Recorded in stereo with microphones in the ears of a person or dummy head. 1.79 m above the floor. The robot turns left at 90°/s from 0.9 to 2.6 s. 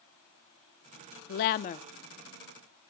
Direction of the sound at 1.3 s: 90° left.